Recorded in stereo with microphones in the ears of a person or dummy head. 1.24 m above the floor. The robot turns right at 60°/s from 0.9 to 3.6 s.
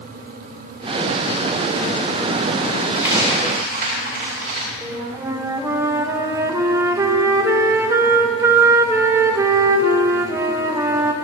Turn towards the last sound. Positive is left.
turn(degrees=-10)  # may be behind; listen again after turning